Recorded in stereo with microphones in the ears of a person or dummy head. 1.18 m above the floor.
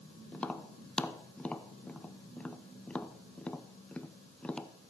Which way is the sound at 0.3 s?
5° left (ahead or behind).